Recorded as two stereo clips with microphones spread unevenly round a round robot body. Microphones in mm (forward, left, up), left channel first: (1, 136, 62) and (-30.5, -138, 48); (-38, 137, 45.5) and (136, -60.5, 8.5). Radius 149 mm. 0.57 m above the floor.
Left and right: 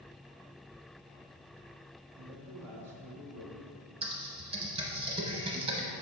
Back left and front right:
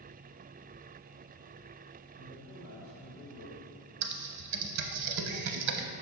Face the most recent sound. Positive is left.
turn(degrees=-25)